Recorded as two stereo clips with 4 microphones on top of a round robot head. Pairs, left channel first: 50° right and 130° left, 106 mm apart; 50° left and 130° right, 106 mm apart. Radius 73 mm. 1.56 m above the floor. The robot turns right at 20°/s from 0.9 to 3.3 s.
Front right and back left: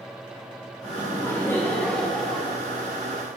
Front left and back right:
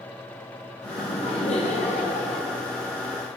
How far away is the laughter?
About 2.5 m.